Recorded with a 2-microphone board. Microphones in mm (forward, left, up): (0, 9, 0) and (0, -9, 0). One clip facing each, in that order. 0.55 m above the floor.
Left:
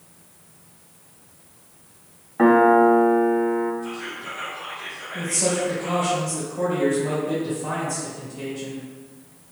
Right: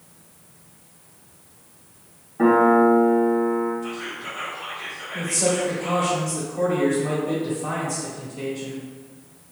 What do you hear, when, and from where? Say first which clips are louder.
2.4 s a piano: left 1 dB; 55° left (ahead or behind), 0.7 m
3.8 s whispering: right 1 dB; 25° right (ahead or behind), 1.9 m
5.1 s a man speaking: right 1 dB; 35° right (ahead or behind), 1.5 m